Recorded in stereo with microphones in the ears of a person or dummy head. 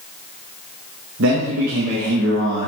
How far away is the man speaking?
About 1.2 m.